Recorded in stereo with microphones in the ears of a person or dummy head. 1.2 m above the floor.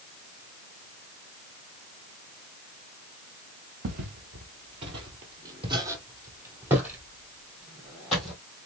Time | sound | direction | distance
3.8 | footsteps | 40° right (ahead or behind) | 1.5 m